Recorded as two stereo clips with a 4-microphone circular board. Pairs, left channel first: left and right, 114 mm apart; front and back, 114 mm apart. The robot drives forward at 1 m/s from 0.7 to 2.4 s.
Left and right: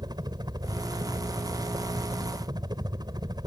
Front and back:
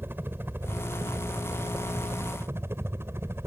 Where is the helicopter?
120° right.